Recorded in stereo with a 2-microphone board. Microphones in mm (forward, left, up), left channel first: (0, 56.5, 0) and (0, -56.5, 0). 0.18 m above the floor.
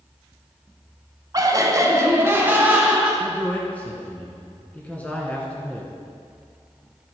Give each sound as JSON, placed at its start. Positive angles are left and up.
{"t": 1.3, "sound": "laughter", "side_deg": -35, "distance_m": 1.3}
{"t": 3.2, "sound": "a man speaking", "side_deg": 15, "distance_m": 1.7}